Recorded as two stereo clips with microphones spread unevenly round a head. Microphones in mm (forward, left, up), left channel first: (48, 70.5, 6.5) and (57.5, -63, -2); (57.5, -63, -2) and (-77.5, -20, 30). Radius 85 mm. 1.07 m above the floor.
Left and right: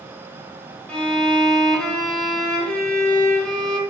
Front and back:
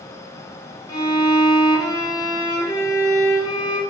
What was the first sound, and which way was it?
A violin, 5° left.